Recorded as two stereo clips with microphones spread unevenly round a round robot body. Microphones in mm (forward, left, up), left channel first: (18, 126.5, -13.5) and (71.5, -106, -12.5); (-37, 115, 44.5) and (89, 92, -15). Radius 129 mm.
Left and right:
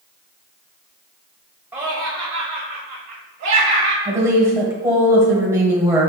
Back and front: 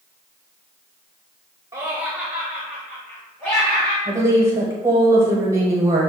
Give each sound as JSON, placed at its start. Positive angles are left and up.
{"t": 1.7, "sound": "laughter", "azimuth_deg": 0, "distance_m": 1.2}
{"t": 4.0, "sound": "a woman speaking", "azimuth_deg": -5, "distance_m": 1.2}